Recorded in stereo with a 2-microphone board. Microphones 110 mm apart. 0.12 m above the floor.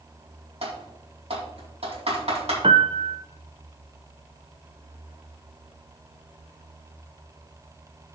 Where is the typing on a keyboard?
70° right (ahead or behind), 4 m.